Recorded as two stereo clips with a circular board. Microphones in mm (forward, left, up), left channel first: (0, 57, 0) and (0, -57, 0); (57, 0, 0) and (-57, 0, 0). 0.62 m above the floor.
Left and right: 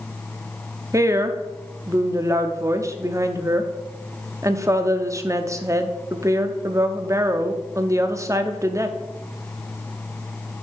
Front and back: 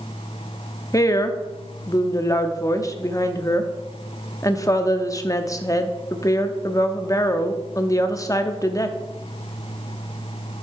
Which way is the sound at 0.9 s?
40° right.